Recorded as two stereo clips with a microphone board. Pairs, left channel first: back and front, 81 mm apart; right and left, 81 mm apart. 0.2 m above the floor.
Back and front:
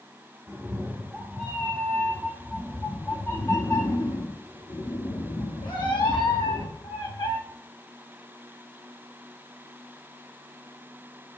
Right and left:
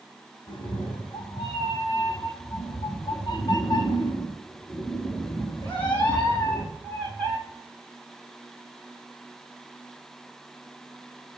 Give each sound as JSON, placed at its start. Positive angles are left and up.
{"t": 0.5, "sound": "a cat meowing", "azimuth_deg": -70, "distance_m": 2.0}